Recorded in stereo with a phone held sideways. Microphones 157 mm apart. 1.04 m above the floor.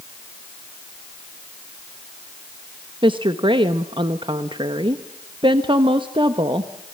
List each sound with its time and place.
3.0 s a woman speaking: 30° right (ahead or behind), 1.1 m